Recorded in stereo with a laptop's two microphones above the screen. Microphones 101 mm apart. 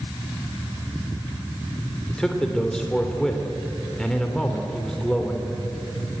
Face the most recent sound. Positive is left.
turn(degrees=5)  # may be behind; listen again after turning